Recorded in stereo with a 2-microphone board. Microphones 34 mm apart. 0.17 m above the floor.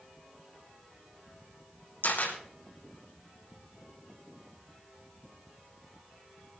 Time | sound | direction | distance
2.0 | a camera shutter | 75° left (ahead or behind) | 4.5 m